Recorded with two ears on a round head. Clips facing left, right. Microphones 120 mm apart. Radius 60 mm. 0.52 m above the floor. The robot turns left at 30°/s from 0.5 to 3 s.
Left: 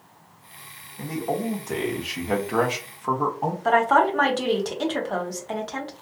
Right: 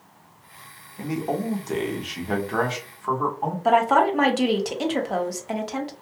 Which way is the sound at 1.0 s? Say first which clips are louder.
Right 1 dB; 150° right.